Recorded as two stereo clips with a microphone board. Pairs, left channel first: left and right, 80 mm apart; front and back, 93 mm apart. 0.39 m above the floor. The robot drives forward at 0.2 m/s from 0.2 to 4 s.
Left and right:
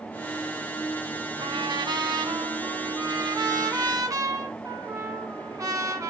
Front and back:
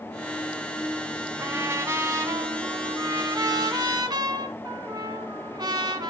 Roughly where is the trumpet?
Behind right.